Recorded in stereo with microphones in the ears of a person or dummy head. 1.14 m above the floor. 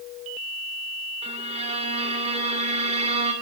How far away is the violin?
About 2.5 m.